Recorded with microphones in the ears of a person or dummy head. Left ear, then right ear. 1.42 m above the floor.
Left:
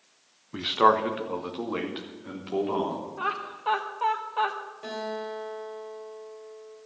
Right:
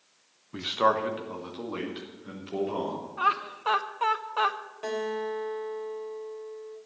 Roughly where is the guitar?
Right.